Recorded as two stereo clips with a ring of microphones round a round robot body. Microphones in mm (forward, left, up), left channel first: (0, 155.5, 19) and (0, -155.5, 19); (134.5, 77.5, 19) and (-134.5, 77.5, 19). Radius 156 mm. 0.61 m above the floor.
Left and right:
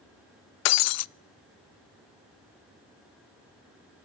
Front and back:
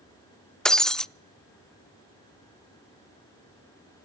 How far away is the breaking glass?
About 0.5 m.